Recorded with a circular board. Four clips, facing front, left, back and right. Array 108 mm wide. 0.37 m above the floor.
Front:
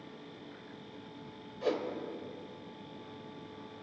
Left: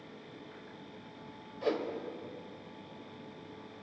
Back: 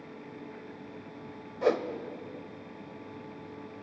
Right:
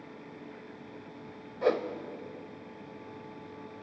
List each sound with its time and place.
1.6 s a whoosh: 140° right, 0.7 m